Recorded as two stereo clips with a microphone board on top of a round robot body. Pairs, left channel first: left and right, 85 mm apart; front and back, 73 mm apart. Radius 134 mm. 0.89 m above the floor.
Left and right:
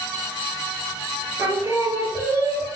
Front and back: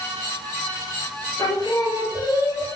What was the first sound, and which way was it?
Singing, 35° right.